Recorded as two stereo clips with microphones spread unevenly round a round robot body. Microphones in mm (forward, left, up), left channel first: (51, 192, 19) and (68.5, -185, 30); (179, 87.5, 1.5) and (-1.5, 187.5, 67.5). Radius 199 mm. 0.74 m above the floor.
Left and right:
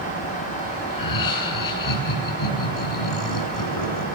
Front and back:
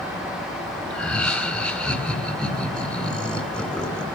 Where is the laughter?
55° left, 8 m.